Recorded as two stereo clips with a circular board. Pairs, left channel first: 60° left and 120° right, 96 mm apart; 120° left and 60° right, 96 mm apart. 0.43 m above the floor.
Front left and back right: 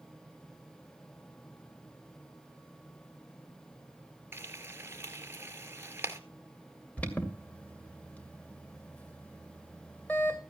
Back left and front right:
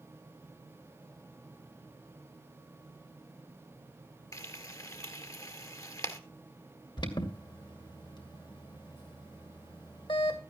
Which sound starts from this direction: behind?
Frying, at 4.3 s.